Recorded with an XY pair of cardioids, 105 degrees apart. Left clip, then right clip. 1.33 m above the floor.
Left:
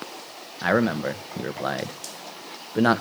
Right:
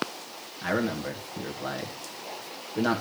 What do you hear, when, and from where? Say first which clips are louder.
0.6 s a man speaking: left 6 dB; 60° left, 1.1 m